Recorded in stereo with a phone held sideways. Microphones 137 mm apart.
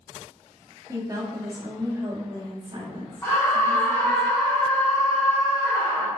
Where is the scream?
20° left (ahead or behind), 0.7 m.